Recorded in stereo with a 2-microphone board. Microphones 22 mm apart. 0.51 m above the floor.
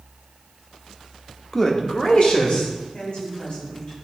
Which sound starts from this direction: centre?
A man speaking, at 1.5 s.